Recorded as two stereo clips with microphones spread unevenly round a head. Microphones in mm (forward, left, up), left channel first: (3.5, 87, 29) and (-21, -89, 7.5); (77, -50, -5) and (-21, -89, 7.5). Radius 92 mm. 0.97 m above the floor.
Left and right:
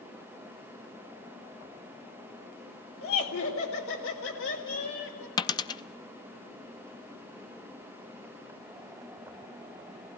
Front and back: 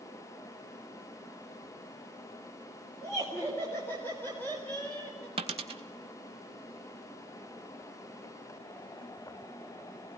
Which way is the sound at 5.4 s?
150° left.